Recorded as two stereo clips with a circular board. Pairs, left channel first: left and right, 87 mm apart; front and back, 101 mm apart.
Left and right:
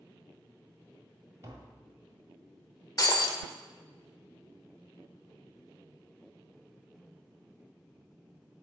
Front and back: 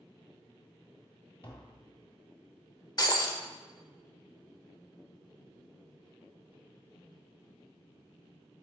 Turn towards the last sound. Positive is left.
turn(degrees=45)